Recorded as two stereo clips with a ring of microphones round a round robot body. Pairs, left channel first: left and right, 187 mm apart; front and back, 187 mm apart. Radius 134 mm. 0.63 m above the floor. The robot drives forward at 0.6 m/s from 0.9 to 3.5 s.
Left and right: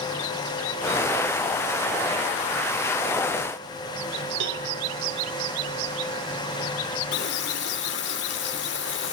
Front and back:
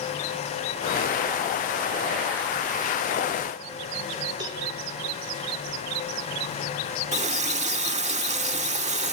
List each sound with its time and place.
4.4 s a cowbell: 110° right, 3 m
7.1 s a running tap: 125° left, 1.2 m